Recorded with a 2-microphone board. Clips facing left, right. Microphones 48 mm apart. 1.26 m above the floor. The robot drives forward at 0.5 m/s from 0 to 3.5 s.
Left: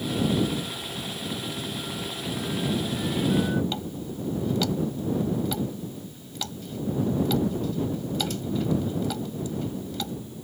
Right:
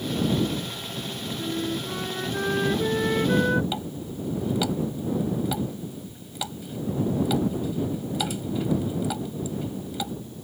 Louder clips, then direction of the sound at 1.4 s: Right 4 dB; 60° right (ahead or behind).